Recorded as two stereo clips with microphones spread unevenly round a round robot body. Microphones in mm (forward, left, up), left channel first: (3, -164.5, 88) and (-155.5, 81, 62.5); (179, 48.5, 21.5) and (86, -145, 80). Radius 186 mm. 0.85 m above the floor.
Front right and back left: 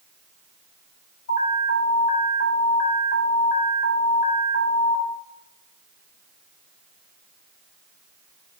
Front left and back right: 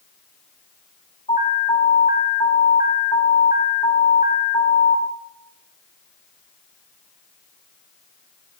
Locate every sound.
1.3 s an alarm: straight ahead, 5 m